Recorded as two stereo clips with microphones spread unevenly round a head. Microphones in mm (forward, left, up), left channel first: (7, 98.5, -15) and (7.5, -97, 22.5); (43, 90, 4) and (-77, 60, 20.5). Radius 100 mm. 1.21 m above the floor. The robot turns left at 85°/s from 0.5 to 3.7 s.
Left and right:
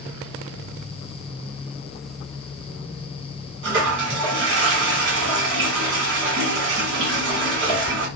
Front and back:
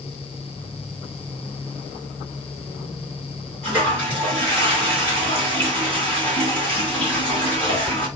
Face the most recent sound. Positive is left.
turn(degrees=-65)